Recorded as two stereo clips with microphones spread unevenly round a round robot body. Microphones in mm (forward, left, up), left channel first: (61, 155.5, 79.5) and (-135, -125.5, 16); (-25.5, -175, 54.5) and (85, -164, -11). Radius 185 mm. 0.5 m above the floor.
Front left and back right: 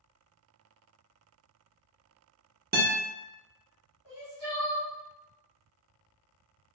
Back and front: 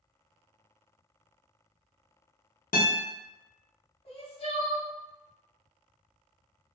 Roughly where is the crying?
Behind right.